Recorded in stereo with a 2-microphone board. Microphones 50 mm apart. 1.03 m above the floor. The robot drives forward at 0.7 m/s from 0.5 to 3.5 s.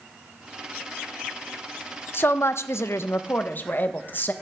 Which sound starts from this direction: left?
A woman speaking, at 2.1 s.